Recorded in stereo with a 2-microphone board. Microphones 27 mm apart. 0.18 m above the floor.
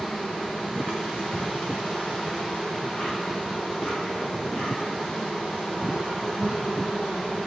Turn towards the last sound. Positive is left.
turn(degrees=35)  # may be behind; listen again after turning